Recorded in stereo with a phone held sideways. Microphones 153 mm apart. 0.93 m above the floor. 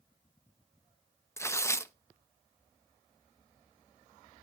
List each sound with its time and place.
1.4 s tearing paper: 15° left (ahead or behind), 0.8 m